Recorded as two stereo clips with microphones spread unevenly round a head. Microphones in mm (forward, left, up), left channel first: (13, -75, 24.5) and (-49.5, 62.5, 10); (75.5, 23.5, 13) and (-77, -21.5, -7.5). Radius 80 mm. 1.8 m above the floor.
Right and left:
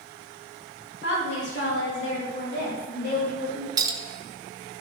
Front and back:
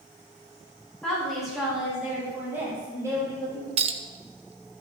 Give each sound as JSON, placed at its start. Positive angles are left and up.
{"t": 1.0, "sound": "a woman speaking", "azimuth_deg": -65, "distance_m": 4.0}
{"t": 3.8, "sound": "a clink", "azimuth_deg": 170, "distance_m": 0.7}